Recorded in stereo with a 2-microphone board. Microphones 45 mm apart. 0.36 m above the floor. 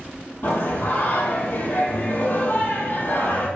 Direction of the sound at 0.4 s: 50° left (ahead or behind).